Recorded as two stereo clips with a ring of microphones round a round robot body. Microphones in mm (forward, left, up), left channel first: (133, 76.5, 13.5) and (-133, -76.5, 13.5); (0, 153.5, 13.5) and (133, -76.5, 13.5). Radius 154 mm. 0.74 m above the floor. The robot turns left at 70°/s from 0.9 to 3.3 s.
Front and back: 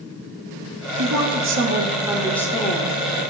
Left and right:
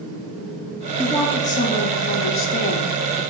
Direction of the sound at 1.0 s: 150° right.